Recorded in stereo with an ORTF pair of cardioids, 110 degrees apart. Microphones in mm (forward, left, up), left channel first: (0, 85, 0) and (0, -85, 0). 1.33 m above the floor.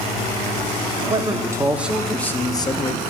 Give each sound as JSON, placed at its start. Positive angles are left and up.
{"t": 1.0, "sound": "a man speaking", "azimuth_deg": -30, "distance_m": 1.0}